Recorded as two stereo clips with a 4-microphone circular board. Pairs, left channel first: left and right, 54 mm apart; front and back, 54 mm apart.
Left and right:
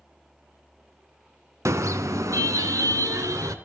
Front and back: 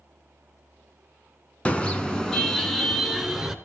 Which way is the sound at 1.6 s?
65° right.